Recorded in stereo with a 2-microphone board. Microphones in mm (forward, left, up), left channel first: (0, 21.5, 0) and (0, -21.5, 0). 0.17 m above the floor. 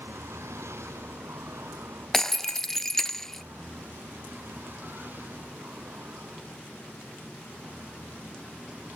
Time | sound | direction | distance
0.0 | a vehicle | 85° right | ?
2.1 | breaking glass | 10° left (ahead or behind) | ?